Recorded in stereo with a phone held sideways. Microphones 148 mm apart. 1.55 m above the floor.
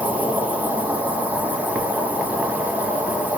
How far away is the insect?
About 0.8 m.